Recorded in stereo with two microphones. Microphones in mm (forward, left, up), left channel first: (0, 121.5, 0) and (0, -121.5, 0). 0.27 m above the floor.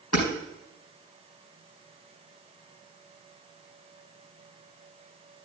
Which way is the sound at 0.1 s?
85° left.